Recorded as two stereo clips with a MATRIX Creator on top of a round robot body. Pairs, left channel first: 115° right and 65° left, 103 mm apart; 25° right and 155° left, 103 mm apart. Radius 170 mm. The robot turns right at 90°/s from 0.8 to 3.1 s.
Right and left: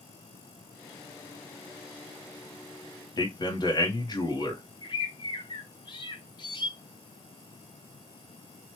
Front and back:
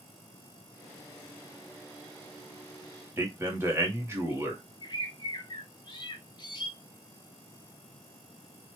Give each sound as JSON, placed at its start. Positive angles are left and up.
{"t": 3.2, "sound": "a man speaking", "azimuth_deg": -145, "distance_m": 1.1}
{"t": 4.8, "sound": "a bird", "azimuth_deg": -70, "distance_m": 0.7}